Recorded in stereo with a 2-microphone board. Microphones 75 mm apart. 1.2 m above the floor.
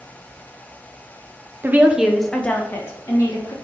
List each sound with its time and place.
1.6 s a woman speaking: 30° right (ahead or behind), 0.6 m; by 3.5 s 45° left (ahead or behind), 1.3 m